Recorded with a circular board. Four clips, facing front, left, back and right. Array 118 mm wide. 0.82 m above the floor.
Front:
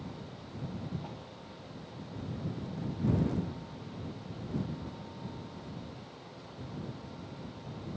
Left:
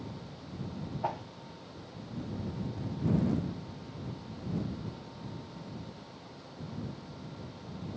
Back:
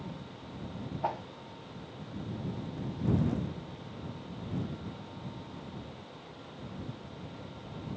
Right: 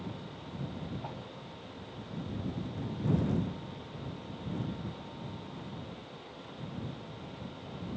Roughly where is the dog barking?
I don't hear a dog barking.